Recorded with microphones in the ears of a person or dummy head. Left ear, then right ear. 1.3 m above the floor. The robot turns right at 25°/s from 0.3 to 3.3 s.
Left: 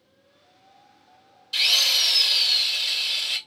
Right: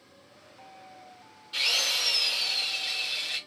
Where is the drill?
25° left, 1.4 m; by 3.4 s 65° left, 1.4 m.